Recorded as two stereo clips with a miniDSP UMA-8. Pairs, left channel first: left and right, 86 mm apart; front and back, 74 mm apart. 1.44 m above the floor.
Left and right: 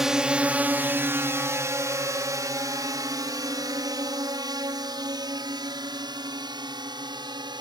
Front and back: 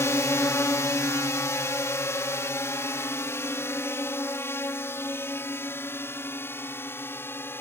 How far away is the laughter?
No laughter in this recording.